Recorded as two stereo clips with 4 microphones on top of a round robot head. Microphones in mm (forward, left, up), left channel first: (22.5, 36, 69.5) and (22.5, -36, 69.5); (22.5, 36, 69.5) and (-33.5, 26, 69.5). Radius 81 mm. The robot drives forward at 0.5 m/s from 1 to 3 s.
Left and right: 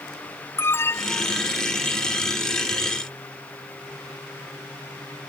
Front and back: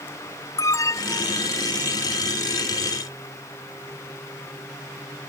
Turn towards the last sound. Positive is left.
turn(degrees=40)